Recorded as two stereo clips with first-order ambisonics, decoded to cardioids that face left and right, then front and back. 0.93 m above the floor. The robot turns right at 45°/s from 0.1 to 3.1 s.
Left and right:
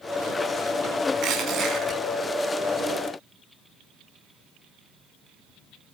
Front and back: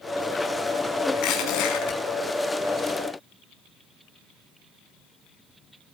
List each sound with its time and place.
1.1 s crushing: 40° right, 5.5 m; by 2.0 s 5° right, 5.5 m